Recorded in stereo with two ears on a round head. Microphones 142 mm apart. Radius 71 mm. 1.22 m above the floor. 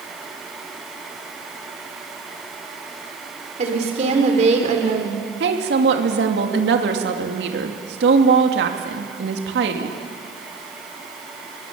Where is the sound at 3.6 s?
45° right (ahead or behind), 3.5 m.